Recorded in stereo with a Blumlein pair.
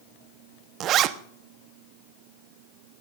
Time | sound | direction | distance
0.8 | a zipper | 35° right | 1.0 m